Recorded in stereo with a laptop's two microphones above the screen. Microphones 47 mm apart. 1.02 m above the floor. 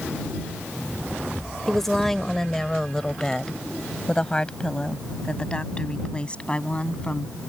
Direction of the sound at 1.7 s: 5° left (ahead or behind).